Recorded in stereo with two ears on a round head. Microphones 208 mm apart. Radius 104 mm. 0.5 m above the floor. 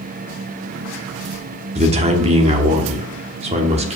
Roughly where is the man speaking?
Right.